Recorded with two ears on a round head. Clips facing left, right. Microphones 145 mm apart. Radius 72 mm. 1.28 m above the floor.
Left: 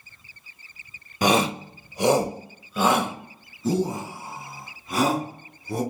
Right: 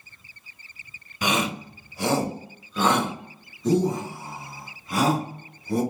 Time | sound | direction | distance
1.2 | a shout | 35° left (ahead or behind) | 0.5 m